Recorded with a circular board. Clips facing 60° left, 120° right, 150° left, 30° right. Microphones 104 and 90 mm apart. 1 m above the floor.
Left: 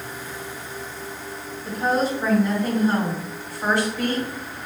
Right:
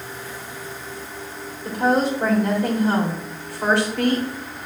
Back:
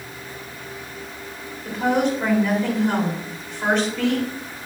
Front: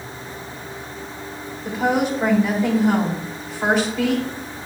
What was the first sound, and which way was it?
A woman speaking, 115° right.